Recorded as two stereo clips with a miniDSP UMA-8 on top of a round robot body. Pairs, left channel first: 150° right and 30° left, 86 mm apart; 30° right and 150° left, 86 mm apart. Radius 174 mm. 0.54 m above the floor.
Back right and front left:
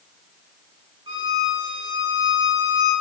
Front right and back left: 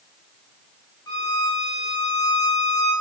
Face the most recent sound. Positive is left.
turn(degrees=10)